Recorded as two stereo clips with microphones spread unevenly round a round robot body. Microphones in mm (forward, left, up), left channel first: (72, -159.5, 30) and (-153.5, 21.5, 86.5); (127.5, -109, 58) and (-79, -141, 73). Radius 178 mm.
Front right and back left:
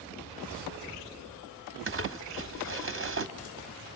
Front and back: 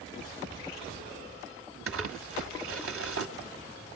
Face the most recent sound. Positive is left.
turn(degrees=-170)